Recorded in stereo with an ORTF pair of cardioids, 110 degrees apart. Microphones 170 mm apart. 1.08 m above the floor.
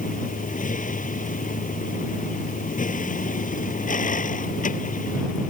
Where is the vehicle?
55° left.